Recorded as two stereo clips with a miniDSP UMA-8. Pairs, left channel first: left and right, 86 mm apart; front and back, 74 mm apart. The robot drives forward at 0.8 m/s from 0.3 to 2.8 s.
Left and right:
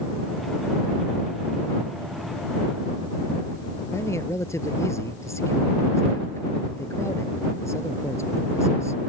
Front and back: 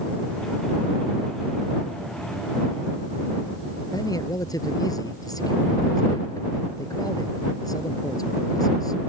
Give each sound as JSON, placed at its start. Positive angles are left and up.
{"t": 3.9, "sound": "a man speaking", "azimuth_deg": 35}